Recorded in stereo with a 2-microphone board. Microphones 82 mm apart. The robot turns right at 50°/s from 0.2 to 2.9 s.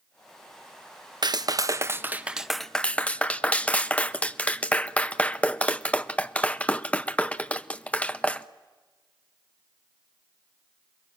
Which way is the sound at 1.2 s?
60° right (ahead or behind).